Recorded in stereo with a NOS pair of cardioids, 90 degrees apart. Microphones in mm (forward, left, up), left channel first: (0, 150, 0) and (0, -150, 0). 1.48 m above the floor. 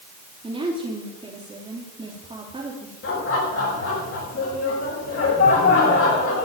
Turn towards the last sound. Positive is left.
turn(degrees=50)